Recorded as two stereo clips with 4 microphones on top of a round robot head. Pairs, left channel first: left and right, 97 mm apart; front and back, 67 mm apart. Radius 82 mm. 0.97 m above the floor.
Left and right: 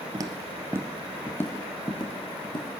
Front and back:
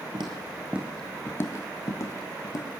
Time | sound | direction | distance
0.1 | footsteps | 135° right | 1.4 m